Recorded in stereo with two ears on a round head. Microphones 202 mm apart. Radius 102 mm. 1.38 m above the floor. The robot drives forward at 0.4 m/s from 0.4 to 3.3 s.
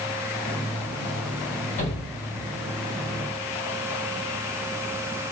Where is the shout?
35° left (ahead or behind), 7 m.